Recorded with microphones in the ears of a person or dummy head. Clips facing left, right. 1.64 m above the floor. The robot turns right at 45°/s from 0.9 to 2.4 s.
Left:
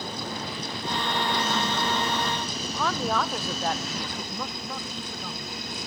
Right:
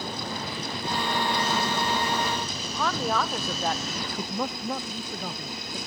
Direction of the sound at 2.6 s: Centre (ahead or behind).